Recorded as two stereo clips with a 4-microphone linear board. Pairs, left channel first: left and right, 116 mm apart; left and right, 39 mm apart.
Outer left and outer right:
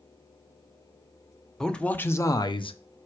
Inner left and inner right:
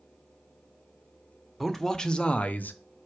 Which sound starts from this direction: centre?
A man speaking, at 1.6 s.